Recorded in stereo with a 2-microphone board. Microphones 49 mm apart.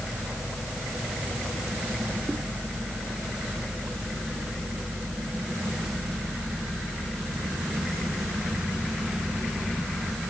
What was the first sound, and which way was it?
Only background noise.